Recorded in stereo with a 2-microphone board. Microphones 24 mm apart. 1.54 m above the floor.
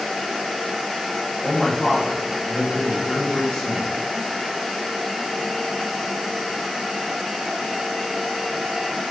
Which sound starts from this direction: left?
A man speaking, at 1.4 s.